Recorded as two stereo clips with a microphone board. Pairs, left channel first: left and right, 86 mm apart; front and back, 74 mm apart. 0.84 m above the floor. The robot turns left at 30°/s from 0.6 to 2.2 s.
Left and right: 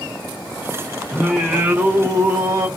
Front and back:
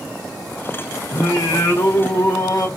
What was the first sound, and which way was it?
Singing, straight ahead.